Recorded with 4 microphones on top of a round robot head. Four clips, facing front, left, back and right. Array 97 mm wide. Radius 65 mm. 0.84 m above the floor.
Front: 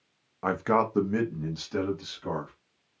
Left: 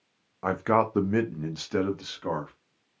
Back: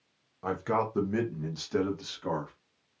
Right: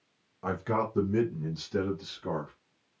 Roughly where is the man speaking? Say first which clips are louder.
Left 6 dB, front 4 dB; ahead left.